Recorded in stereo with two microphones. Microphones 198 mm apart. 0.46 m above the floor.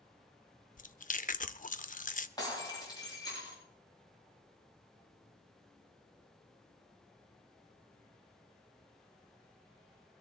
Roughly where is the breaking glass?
Centre.